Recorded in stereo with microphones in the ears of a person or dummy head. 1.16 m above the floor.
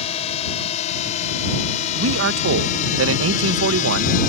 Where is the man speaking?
85° right.